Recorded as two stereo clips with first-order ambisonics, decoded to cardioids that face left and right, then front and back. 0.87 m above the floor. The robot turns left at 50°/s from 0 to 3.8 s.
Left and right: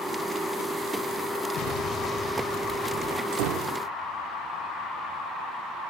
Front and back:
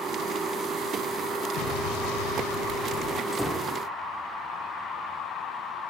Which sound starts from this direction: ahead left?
An explosion, at 1.6 s.